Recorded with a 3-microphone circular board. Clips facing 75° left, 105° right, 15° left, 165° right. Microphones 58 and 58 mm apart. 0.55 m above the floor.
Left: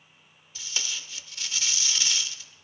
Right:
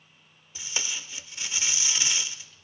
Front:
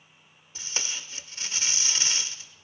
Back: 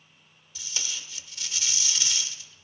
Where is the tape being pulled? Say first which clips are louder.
Right 1 dB, front 2 dB; 35° right, 0.6 m.